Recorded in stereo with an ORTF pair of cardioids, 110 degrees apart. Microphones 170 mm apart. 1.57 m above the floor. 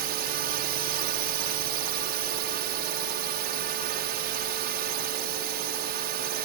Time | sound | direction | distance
0.0 | a drone | 65° right | ?